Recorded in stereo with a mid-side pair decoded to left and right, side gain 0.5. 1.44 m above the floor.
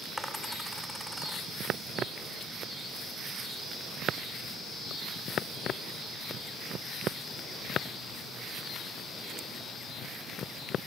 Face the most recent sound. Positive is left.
turn(degrees=5)